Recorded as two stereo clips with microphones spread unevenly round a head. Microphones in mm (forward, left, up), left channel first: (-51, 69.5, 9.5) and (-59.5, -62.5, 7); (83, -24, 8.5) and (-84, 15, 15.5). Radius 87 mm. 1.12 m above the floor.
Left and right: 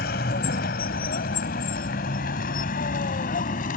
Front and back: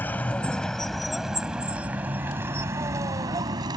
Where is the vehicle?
65° left; by 3.8 s 100° left.